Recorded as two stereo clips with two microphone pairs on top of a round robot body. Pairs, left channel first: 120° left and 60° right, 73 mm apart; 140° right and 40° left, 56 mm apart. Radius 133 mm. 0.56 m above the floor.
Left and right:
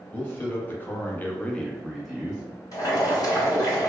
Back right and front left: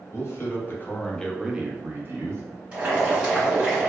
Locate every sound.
0.1 s a man speaking: straight behind, 1.1 m; by 2.4 s 20° left, 0.9 m
2.7 s boiling: 100° left, 1.6 m